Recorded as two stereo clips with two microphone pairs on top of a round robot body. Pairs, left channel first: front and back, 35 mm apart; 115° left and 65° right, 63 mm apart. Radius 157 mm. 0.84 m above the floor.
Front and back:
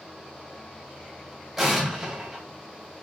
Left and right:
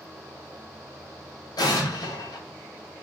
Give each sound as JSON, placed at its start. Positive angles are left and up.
{"t": 1.6, "sound": "an explosion", "azimuth_deg": 95, "distance_m": 1.7}